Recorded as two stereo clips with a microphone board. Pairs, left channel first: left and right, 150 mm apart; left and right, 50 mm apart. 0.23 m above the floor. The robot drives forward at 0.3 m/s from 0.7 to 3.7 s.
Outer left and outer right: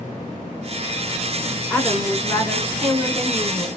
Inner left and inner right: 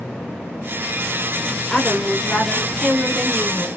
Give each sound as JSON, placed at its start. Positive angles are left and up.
{"t": 1.7, "sound": "a woman speaking", "side_deg": 5, "distance_m": 1.9}